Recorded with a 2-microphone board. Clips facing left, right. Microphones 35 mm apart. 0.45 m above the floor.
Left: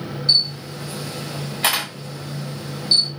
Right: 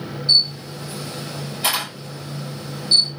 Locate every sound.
0.3 s a camera shutter: 65° left (ahead or behind), 1.8 m